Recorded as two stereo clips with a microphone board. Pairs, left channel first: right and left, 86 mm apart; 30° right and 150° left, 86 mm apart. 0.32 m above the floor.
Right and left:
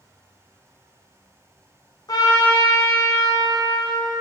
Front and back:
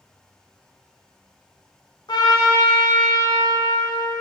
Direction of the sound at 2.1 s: 60° right.